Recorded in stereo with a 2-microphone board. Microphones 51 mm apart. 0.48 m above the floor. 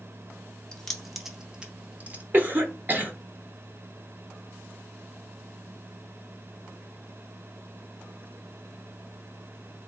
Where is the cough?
40° right (ahead or behind), 1.0 m.